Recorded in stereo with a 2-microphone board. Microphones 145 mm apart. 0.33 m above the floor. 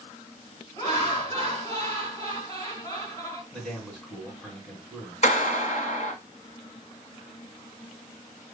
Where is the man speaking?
5° right (ahead or behind), 2.5 m.